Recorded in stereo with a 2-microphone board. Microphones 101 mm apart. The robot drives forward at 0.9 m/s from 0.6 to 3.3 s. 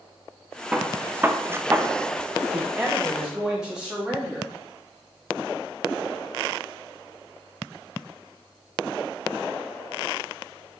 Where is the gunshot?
10° right (ahead or behind), 1.1 m; by 1.9 s 25° right (ahead or behind), 0.6 m.